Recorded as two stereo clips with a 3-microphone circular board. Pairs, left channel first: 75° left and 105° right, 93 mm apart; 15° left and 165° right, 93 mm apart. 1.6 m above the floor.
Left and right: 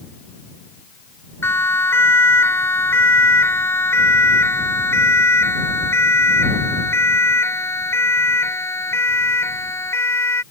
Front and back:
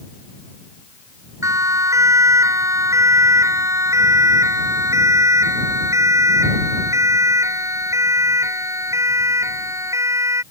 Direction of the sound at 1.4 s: 140° left.